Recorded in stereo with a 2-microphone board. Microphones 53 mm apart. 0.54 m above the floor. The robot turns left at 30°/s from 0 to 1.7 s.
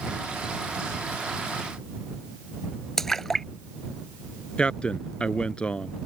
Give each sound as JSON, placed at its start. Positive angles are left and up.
{"t": 3.0, "sound": "a splash", "side_deg": 10}
{"t": 4.6, "sound": "a man speaking", "side_deg": 20}